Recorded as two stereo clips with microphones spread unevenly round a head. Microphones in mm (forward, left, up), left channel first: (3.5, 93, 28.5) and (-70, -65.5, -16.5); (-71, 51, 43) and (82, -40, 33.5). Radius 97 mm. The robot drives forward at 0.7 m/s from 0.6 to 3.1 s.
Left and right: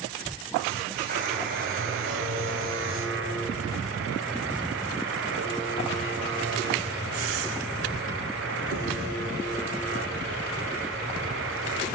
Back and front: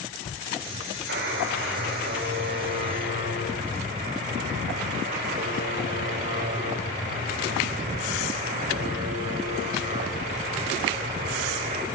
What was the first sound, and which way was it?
A buzzer, 65° right.